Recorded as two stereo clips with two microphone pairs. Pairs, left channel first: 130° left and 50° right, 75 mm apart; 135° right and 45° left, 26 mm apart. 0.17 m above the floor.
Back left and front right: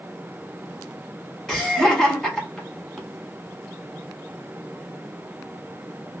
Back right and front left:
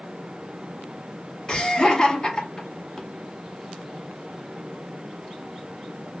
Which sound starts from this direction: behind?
Laughter, at 1.5 s.